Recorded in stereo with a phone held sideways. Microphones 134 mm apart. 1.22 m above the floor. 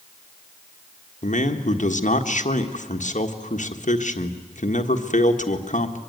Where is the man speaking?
65° left (ahead or behind), 1.6 m.